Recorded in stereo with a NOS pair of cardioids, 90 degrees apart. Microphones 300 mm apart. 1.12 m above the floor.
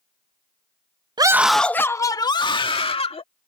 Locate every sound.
1.2 s a scream: 15° right; by 3.2 s 20° left